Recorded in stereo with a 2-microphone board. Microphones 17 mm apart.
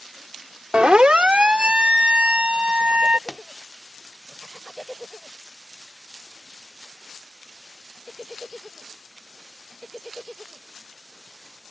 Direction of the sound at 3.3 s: Centre (ahead or behind).